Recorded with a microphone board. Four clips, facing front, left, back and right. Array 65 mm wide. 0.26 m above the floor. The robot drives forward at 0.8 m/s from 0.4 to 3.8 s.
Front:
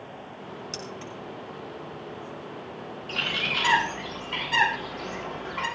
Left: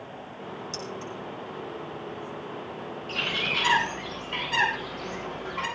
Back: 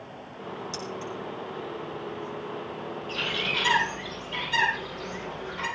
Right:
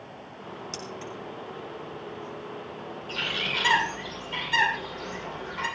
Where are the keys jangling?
30° right, 4.5 m.